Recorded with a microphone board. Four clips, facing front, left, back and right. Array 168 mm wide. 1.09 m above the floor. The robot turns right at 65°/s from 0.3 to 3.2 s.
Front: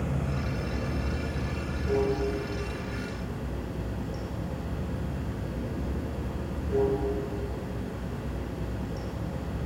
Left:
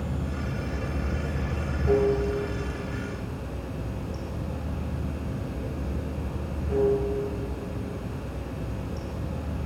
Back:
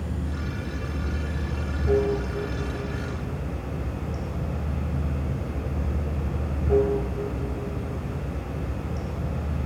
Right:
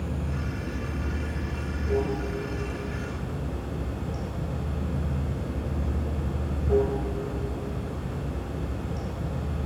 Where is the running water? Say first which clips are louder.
Even, front 1 dB; 15° left, 2 m; by 9.7 s 155° right, 2 m.